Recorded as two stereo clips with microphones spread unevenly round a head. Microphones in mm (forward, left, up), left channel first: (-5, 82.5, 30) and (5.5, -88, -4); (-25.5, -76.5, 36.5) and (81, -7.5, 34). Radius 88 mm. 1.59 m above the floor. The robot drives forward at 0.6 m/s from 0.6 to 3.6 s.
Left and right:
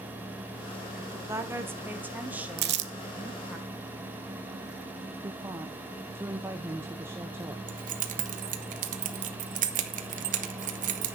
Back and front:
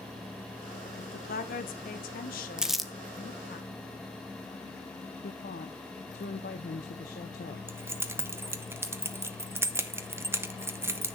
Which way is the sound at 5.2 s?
165° right.